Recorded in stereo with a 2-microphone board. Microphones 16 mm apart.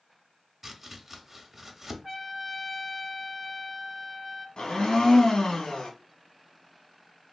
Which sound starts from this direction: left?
A blender, at 4.6 s.